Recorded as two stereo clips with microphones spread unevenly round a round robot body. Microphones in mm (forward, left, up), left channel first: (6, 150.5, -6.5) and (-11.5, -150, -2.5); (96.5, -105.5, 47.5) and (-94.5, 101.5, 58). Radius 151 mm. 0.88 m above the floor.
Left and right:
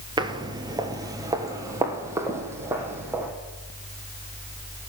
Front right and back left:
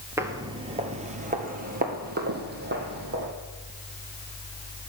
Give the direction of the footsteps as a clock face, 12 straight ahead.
5 o'clock.